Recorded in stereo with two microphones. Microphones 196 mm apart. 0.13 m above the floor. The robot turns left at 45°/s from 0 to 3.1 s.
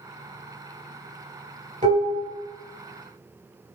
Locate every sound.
1.8 s dishes clattering: 40° right (ahead or behind), 1.3 m; by 2.2 s 50° right (ahead or behind), 1.3 m